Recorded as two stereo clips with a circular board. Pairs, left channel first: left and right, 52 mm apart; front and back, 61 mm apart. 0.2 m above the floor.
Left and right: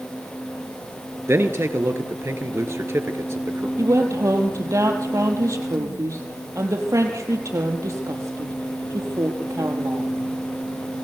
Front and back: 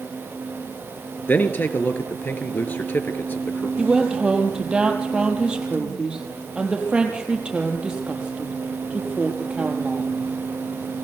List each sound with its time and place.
1.3 s a man speaking: 55° right, 3 m
3.8 s a woman speaking: 105° right, 5 m